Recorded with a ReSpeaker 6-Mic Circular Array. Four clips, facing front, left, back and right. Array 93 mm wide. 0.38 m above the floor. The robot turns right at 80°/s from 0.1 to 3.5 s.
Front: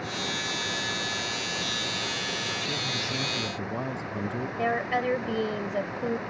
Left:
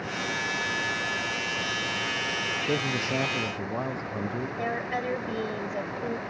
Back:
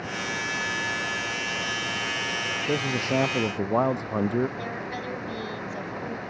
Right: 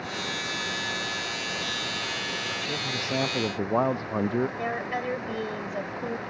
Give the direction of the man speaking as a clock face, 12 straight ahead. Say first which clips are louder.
Left 4 dB, back 7 dB; 7 o'clock.